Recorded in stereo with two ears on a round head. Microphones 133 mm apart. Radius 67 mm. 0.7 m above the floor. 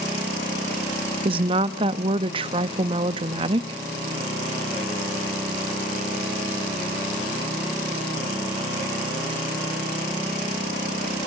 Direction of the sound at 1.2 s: 35° right (ahead or behind).